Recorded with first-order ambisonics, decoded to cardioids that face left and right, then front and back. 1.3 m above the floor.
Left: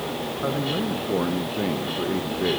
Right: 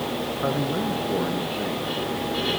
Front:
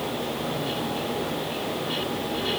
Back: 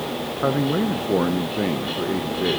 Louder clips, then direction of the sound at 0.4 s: Even, back 7 dB; 175° right.